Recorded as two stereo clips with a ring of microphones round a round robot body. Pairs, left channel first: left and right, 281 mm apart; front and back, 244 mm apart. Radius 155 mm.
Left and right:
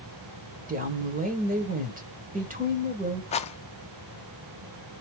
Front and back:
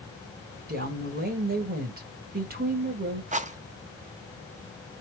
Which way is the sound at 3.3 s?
140° left.